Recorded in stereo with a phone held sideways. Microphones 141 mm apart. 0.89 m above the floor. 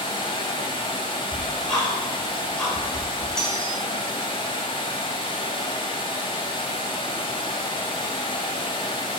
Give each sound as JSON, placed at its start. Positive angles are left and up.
{"t": 0.0, "sound": "running water", "side_deg": 40, "distance_m": 1.2}
{"t": 1.3, "sound": "ticking", "side_deg": 5, "distance_m": 2.5}
{"t": 3.4, "sound": "cutlery clinking", "side_deg": 5, "distance_m": 1.7}